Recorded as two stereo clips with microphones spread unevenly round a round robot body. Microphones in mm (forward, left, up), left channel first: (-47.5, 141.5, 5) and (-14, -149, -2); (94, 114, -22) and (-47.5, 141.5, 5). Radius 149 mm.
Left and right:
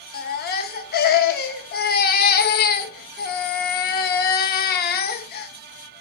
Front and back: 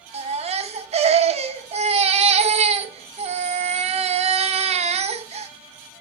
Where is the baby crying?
140° left, 0.9 m.